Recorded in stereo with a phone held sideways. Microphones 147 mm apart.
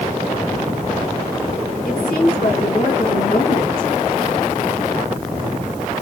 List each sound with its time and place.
1.9 s a woman speaking: 80° left, 1.8 m